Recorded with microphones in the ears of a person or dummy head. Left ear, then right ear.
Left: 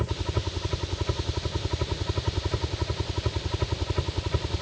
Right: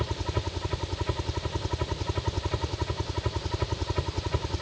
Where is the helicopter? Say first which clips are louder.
Even; 20° right (ahead or behind).